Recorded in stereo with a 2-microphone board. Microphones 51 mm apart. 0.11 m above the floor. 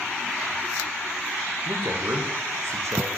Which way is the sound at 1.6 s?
60° right (ahead or behind).